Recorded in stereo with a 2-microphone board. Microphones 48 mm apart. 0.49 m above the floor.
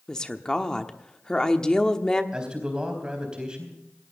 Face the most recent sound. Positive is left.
turn(degrees=-20)  # may be behind; listen again after turning